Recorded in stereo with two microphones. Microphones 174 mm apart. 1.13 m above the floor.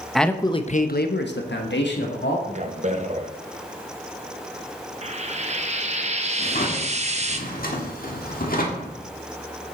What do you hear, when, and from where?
0.1 s a man speaking: centre (ahead or behind), 0.8 m; by 2.4 s 80° left, 2.0 m
2.5 s a man speaking: 40° right (ahead or behind), 1.1 m
5.0 s frying: 40° right (ahead or behind), 0.8 m
6.4 s a drawer: 55° left (ahead or behind), 1.6 m